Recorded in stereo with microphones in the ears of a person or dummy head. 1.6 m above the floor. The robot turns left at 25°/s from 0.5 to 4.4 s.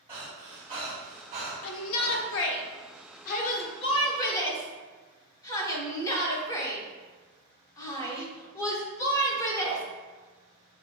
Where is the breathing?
20° right (ahead or behind), 1.0 m; by 2.2 s 45° right (ahead or behind), 1.0 m.